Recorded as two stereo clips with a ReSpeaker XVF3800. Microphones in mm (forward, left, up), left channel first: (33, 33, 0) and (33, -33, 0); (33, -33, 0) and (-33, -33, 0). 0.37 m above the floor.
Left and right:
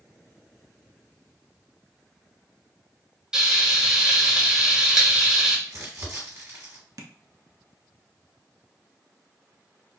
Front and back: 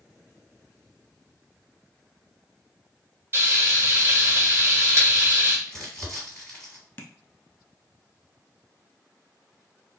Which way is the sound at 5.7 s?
85° right.